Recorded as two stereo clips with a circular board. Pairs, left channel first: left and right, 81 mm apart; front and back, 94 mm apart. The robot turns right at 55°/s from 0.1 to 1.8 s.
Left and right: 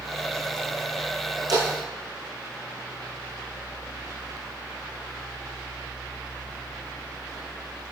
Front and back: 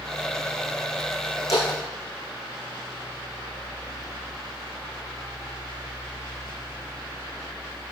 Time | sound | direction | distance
1.5 | a splash | 55° right | 6 m